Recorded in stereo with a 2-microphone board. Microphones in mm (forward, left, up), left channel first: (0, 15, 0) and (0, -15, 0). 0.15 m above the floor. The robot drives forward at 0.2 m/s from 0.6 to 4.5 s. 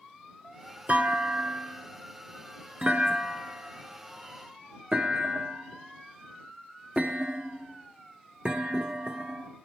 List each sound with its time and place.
0.9 s a clunk: 45° right (ahead or behind), 0.9 m; by 9.5 s 30° right (ahead or behind), 1.3 m